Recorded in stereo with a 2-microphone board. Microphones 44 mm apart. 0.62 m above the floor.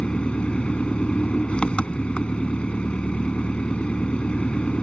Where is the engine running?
25° left (ahead or behind).